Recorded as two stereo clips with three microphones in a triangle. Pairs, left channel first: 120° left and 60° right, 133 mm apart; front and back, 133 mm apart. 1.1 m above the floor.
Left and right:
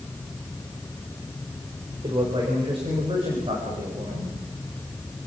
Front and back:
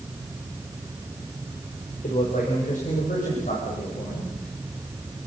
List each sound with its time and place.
2.0 s a man speaking: 10° right, 4 m; by 4.3 s 15° right, 6.5 m